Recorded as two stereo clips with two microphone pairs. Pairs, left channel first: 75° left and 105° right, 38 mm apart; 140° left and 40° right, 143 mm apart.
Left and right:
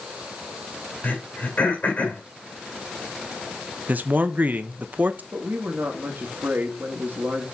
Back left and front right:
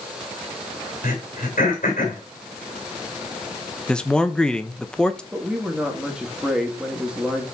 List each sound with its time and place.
1.0 s throat clearing: 115° left, 3 m
3.9 s a man speaking: 135° right, 0.7 m
5.3 s a woman speaking: 125° right, 1.6 m